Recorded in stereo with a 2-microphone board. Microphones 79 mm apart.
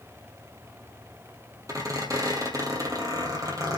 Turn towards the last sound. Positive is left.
turn(degrees=-45)  # may be behind; listen again after turning